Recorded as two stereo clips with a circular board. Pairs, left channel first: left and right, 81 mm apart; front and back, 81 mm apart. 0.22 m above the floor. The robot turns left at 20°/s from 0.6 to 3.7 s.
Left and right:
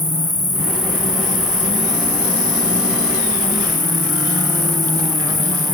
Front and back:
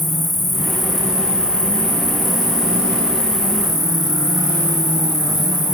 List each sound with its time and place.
0.0 s an insect: 85° right, 1.0 m; by 5.8 s 150° right, 1.0 m